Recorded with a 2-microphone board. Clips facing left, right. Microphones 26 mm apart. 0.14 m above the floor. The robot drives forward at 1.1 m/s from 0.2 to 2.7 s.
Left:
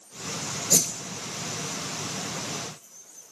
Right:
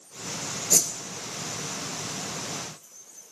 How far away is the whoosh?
About 0.7 m.